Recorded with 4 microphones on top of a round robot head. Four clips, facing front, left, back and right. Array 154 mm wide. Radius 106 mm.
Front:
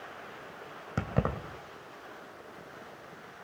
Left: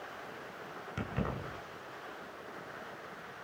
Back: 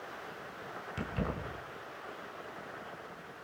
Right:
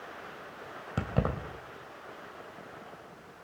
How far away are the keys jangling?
About 2.5 m.